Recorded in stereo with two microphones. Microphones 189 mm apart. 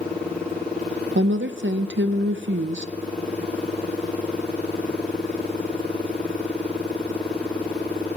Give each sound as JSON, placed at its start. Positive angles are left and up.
{"t": 1.1, "sound": "a woman speaking", "side_deg": -80, "distance_m": 0.5}